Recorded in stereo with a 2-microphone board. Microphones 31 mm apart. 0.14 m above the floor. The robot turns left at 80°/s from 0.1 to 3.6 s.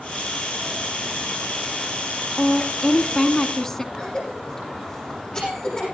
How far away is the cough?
About 8.5 m.